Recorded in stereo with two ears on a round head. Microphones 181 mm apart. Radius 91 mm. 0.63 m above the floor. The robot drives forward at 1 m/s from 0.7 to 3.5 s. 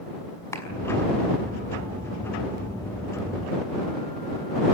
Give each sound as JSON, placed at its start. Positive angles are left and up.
{"t": 0.5, "sound": "a clap", "side_deg": 15, "distance_m": 5.5}